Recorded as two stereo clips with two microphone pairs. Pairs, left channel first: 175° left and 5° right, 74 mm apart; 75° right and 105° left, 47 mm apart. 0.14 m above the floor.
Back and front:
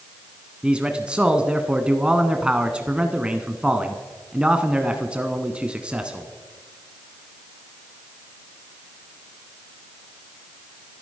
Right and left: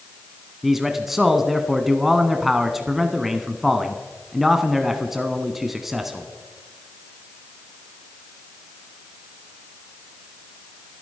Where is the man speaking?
35° left, 1.1 m.